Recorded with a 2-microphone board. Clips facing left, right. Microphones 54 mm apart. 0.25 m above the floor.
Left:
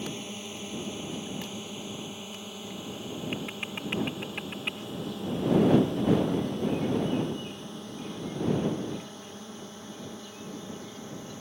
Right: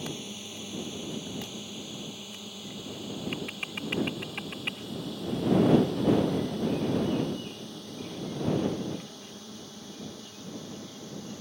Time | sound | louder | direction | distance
0.0 | a drone | left 1 dB | 25° left (ahead or behind) | ?